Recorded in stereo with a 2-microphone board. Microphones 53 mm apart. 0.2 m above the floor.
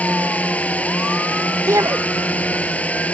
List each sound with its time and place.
0.0 s a drone: 25° left (ahead or behind)
1.7 s a shout: 70° right (ahead or behind)